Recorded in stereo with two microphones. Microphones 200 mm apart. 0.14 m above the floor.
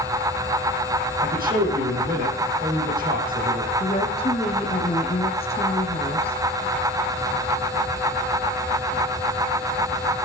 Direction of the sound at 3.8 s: 30° left (ahead or behind).